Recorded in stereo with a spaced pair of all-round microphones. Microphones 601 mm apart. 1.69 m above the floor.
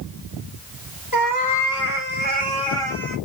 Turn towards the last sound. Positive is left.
turn(degrees=0)  # may be behind; listen again after turning